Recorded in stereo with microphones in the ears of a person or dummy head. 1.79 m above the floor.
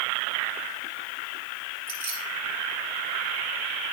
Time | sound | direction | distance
1.9 | keys jangling | 75° right (ahead or behind) | 3 m